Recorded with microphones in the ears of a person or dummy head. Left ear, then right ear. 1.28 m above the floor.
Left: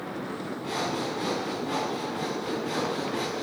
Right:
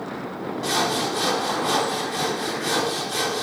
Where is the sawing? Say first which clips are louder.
Right 8 dB; 80° right, 3 m.